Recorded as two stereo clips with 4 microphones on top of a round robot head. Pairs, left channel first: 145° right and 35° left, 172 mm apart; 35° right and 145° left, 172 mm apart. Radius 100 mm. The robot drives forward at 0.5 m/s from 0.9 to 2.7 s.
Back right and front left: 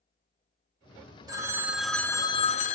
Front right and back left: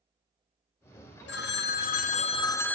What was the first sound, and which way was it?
A phone ringing, 35° right.